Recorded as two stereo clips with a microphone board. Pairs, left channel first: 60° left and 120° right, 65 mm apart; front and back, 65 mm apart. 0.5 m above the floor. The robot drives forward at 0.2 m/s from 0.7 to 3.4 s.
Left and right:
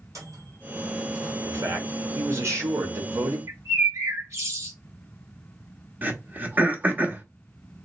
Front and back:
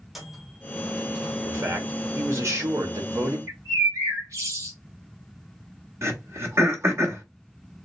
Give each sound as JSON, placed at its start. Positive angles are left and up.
{"t": 0.1, "sound": "a microwave", "azimuth_deg": -95, "distance_m": 1.6}
{"t": 1.4, "sound": "a man speaking", "azimuth_deg": -145, "distance_m": 1.2}
{"t": 3.5, "sound": "a bird", "azimuth_deg": -150, "distance_m": 2.0}
{"t": 6.0, "sound": "throat clearing", "azimuth_deg": -170, "distance_m": 0.8}